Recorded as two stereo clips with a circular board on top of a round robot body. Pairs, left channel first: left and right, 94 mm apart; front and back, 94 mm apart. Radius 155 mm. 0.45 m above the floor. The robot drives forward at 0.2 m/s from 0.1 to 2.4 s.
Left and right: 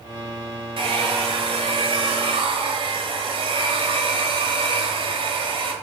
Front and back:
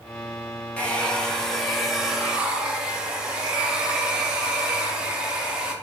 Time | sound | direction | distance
0.8 | a hair dryer | 75° right | 1.0 m